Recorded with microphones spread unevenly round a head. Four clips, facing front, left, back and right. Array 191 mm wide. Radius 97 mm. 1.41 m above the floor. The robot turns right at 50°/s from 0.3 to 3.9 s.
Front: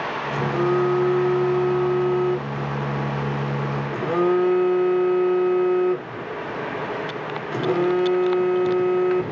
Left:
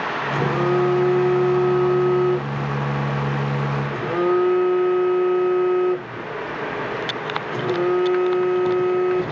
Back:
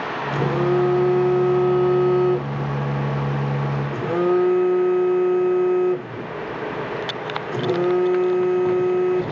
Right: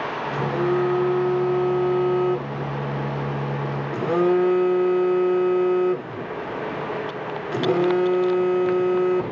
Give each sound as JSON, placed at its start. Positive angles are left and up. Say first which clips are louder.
{"t": 0.3, "sound": "a phone buzzing", "louder": "left 2 dB, back 1 dB", "azimuth_deg": 120, "distance_m": 1.1}